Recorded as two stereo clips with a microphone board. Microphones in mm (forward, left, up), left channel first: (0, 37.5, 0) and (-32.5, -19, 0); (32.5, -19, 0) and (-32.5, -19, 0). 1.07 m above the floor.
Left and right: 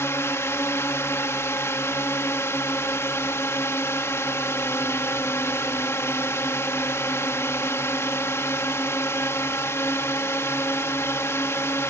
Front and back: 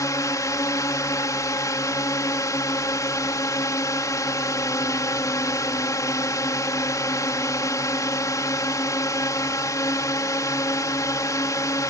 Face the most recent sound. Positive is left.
turn(degrees=20)